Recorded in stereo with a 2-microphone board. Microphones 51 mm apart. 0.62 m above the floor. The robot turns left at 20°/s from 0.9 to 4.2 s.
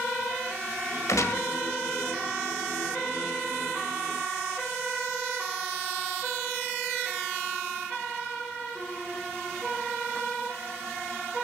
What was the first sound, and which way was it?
A gunshot, 75° left (ahead or behind).